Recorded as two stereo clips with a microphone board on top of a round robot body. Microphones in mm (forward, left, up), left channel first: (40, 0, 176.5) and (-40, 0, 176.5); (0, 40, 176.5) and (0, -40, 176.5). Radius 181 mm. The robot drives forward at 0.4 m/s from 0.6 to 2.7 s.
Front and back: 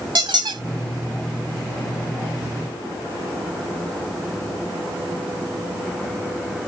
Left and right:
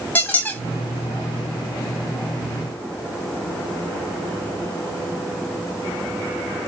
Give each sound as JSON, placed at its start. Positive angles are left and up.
{"t": 0.1, "sound": "a squeak", "azimuth_deg": 160, "distance_m": 1.4}